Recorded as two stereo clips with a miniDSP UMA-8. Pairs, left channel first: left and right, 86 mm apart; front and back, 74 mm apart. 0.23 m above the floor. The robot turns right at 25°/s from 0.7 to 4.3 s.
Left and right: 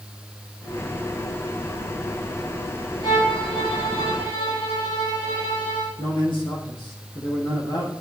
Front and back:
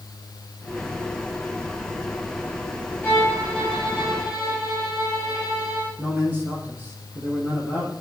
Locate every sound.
3.0 s a violin: 60° left, 9.5 m; by 5.9 s 95° left, 9.5 m
6.0 s a man speaking: 115° left, 7.5 m